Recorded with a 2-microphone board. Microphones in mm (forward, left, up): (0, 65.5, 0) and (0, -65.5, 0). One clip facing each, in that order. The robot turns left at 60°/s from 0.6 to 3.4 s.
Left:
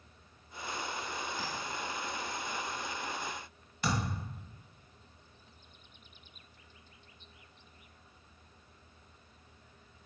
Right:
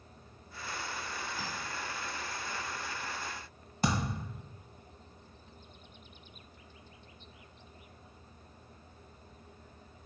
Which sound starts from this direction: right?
A thud, at 3.8 s.